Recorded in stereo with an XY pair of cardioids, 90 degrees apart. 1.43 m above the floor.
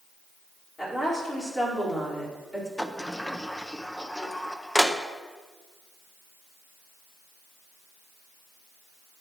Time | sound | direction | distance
0.8 | a woman speaking | 25° left | 4.5 m
2.8 | a sliding door | 10° left | 0.7 m